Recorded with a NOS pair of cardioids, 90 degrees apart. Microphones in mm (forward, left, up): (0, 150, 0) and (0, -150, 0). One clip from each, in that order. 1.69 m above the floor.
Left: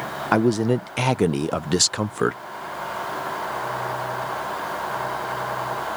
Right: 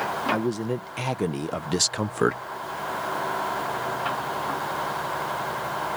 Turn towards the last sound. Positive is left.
turn(degrees=-5)